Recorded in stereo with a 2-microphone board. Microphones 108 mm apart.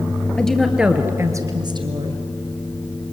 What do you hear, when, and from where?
0.4 s a woman speaking: 10° left (ahead or behind), 2.5 m; by 2.2 s 55° right (ahead or behind), 2.5 m